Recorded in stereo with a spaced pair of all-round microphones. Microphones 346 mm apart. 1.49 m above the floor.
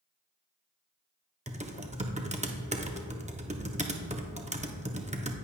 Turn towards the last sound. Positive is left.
turn(degrees=-20)  # may be behind; listen again after turning